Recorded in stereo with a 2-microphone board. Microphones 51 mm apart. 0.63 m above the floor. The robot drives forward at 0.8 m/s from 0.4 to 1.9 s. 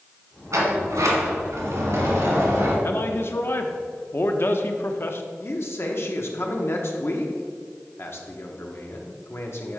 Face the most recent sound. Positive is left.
turn(degrees=50)  # may be behind; listen again after turning